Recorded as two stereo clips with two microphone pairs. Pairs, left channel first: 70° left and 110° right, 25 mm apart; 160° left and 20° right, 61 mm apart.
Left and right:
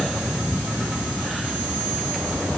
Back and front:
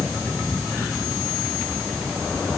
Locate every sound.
Only background noise.